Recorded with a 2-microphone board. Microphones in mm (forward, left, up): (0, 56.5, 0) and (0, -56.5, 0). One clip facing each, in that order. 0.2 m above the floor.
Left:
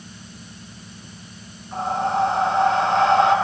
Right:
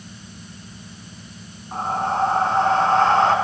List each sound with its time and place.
1.7 s breathing: 45° right (ahead or behind), 1.0 m